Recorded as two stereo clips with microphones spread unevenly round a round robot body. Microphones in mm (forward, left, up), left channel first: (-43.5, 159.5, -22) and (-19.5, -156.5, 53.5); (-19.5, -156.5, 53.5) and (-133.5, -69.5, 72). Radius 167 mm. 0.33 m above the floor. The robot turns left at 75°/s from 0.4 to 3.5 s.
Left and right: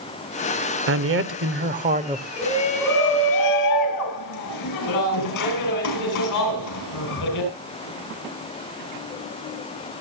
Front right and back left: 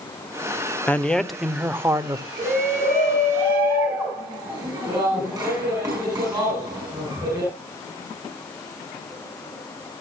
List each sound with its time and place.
0.9 s a man speaking: 80° right, 1.0 m; by 2.3 s 175° left, 1.0 m
2.4 s a shout: 155° left, 9 m; by 7.5 s 70° left, 9 m